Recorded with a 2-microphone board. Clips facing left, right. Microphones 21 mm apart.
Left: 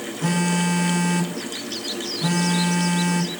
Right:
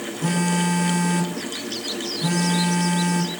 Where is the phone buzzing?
15° left (ahead or behind), 1.1 m.